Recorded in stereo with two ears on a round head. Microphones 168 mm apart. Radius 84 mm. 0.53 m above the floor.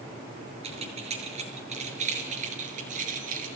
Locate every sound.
0.6 s keys jangling: 35° right (ahead or behind), 6.5 m; by 3.5 s 50° right (ahead or behind), 6 m